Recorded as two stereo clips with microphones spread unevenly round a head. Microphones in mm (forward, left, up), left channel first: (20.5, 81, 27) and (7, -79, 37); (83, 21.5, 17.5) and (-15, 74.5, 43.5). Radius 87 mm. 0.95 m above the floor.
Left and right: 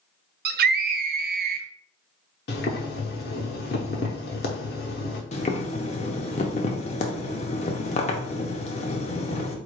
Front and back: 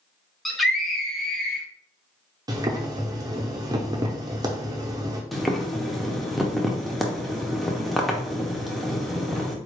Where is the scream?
110° right, 0.6 m.